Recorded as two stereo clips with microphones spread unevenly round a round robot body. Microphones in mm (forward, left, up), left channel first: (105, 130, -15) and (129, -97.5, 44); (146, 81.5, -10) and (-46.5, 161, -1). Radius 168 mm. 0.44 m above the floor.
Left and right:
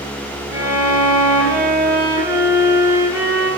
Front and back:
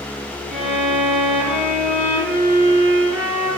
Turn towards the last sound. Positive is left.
turn(degrees=-145)